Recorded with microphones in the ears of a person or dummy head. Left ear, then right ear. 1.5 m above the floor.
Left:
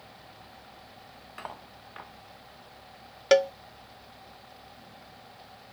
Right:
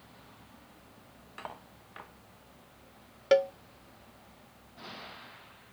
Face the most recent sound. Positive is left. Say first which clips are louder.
# left 3 dB
turn(degrees=20)  # may be behind; listen again after turning